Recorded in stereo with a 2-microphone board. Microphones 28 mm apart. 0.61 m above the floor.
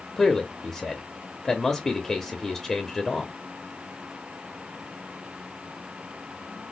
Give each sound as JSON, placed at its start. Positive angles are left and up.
{"t": 0.2, "sound": "a man speaking", "side_deg": 10, "distance_m": 0.8}